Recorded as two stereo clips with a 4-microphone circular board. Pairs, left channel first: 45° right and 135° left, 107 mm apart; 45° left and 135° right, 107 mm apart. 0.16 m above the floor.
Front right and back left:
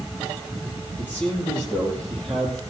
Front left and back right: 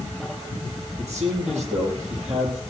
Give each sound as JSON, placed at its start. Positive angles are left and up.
{"t": 1.0, "sound": "a man speaking", "azimuth_deg": -120, "distance_m": 4.5}